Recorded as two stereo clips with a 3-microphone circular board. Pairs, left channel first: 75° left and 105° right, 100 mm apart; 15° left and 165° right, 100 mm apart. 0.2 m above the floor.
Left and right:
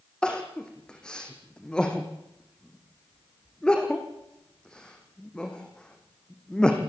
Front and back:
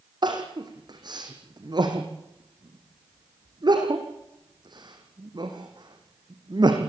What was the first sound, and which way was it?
Crying, 155° left.